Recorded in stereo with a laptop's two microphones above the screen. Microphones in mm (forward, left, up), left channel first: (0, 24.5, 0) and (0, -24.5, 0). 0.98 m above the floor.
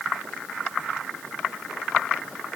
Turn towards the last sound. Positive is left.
No sound to turn to.